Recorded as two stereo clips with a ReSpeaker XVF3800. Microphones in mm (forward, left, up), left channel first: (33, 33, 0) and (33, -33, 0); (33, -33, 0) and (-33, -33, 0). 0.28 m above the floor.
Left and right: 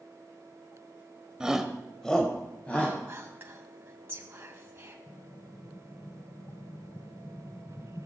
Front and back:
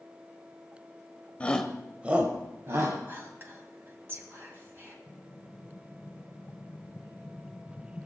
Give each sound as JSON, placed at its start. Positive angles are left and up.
{"t": 1.4, "sound": "a shout", "azimuth_deg": -30, "distance_m": 1.0}
{"t": 3.1, "sound": "whispering", "azimuth_deg": -140, "distance_m": 2.0}
{"t": 5.1, "sound": "an explosion", "azimuth_deg": 70, "distance_m": 0.5}